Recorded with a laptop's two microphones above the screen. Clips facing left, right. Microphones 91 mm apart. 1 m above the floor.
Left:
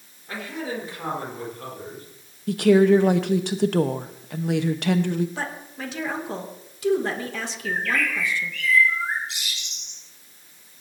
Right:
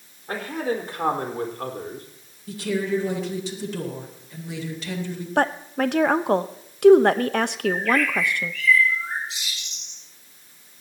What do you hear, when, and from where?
0.3 s a man speaking: 50° right (ahead or behind), 4.5 m; by 2.1 s 60° right (ahead or behind), 4 m
2.5 s a woman speaking: 60° left (ahead or behind), 1.1 m
5.4 s a woman speaking: 60° right (ahead or behind), 0.8 m
7.7 s a bird: 75° left (ahead or behind), 4 m